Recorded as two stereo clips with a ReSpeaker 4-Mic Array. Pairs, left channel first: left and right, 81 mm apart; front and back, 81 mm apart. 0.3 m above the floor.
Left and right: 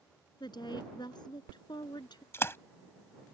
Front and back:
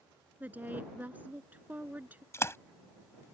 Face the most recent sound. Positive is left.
turn(degrees=40)